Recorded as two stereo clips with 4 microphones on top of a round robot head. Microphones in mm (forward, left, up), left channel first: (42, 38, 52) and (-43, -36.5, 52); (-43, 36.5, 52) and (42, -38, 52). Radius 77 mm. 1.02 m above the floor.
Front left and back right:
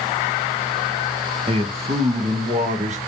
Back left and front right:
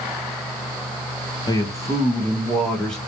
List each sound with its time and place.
1.5 s a man speaking: 170° right, 1.3 m; by 3.0 s 135° right, 1.7 m